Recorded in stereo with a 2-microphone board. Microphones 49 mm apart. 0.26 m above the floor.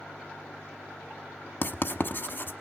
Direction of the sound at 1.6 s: 40° left (ahead or behind).